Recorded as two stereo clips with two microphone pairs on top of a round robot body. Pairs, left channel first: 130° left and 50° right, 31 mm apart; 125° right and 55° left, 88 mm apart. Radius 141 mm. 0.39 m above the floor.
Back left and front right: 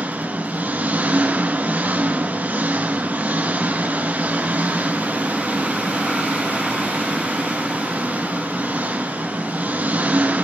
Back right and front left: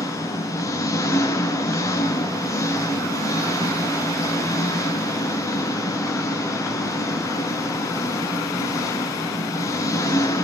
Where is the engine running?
70° right, 3.5 m.